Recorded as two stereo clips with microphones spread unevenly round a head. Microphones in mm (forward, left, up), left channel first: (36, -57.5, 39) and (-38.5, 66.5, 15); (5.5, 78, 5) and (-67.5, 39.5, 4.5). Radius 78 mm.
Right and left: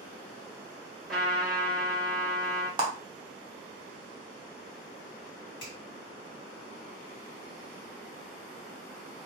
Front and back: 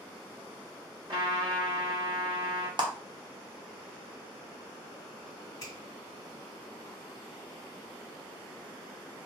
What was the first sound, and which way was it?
A trumpet, 140° right.